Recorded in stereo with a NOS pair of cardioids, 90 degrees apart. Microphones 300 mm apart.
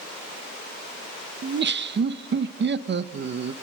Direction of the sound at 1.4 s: 40° right.